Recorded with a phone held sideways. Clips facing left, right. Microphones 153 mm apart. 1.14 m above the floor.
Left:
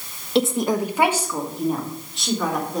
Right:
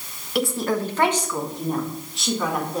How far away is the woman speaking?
About 0.6 m.